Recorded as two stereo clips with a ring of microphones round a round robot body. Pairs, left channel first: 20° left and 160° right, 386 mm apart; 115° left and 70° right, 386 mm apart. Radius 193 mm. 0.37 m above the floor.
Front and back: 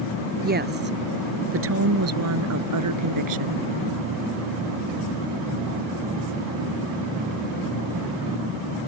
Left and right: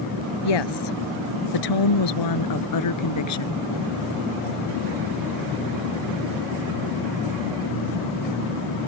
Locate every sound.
0.4 s a woman speaking: 135° left; by 3.6 s 165° left